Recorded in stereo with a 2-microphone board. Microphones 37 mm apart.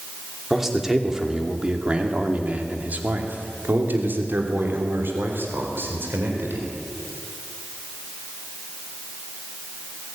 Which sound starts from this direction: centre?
A man speaking, at 0.5 s.